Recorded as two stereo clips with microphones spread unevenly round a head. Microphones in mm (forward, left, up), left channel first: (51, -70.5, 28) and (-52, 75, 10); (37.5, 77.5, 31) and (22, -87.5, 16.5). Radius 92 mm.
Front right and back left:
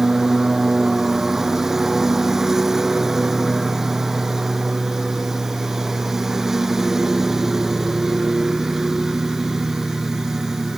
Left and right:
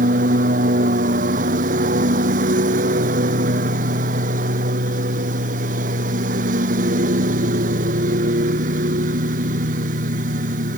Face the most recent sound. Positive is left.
turn(degrees=-145)